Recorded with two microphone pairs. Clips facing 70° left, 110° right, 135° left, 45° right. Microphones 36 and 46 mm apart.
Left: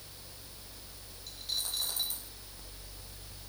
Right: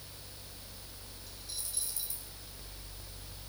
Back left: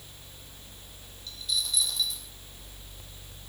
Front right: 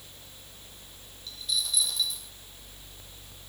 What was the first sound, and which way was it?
A dropped coin, 45° left.